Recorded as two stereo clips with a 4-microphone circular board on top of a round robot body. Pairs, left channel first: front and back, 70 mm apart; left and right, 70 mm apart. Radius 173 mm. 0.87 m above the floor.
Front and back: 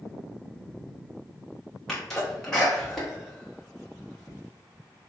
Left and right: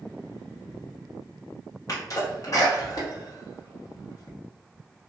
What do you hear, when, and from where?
1.9 s a sneeze: 85° left, 1.0 m